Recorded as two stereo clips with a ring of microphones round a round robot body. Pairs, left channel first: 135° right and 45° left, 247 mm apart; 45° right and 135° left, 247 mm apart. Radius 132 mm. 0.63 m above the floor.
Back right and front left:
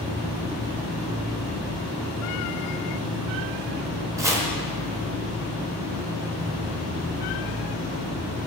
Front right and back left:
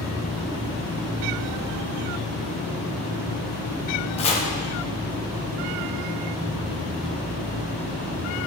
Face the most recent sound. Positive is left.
turn(degrees=-15)